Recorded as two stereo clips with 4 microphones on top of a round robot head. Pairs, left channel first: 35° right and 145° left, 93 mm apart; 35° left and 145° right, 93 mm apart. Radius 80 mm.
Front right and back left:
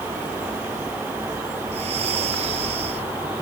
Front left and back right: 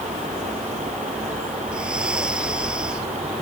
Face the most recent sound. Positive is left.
turn(degrees=135)